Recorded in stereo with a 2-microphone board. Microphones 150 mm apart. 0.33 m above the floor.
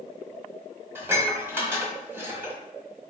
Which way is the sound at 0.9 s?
15° right (ahead or behind).